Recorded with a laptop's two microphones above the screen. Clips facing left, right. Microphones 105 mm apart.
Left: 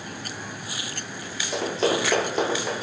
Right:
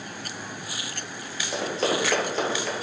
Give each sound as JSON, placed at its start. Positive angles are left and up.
{"t": 1.5, "sound": "running footsteps", "side_deg": 0, "distance_m": 1.2}